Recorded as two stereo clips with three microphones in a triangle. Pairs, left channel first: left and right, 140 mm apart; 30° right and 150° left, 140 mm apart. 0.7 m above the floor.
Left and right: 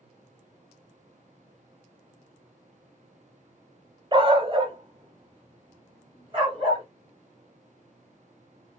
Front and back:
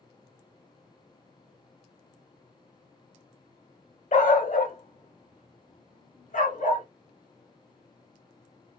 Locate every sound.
4.1 s a dog barking: 40° right, 0.8 m